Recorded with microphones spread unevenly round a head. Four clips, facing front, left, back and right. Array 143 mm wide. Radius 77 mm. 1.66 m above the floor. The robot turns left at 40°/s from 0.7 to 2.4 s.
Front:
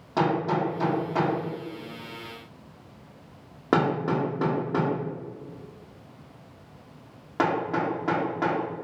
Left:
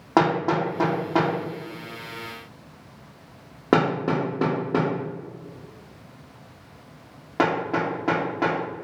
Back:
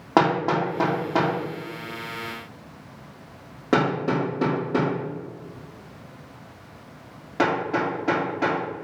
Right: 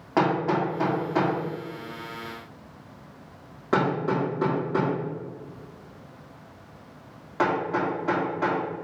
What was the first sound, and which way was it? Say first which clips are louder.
Hammering: left 2 dB, back 4 dB; 145° left.